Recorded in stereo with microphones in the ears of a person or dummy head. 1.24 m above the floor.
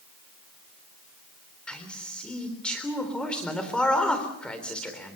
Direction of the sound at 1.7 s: Centre (ahead or behind).